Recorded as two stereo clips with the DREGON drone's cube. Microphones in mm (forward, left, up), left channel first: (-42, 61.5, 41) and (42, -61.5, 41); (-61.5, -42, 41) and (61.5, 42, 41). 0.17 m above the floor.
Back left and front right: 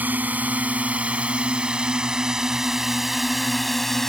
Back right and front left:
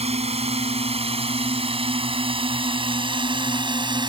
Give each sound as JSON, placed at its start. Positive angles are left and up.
{"t": 0.0, "sound": "a drone", "azimuth_deg": 20}